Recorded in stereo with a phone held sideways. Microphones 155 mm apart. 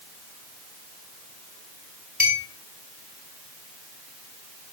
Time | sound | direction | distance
2.2 | a clink | 70° right (ahead or behind) | 4.5 m